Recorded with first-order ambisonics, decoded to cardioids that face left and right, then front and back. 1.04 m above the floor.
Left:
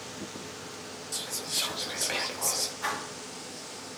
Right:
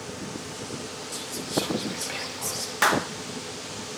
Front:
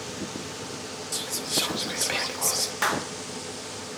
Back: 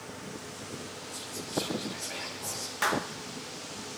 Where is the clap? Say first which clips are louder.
Right 10 dB, front 1 dB; 80° right, 0.8 m.